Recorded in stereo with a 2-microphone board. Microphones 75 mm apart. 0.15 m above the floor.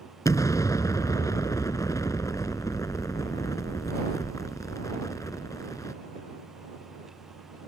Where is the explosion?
50° left (ahead or behind).